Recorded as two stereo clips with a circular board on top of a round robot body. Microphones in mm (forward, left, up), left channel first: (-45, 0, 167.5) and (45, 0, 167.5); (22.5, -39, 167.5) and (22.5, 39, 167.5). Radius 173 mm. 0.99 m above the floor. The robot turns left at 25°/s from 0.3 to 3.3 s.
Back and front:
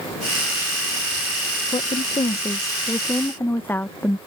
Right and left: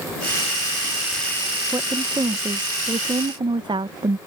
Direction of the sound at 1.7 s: 150° left.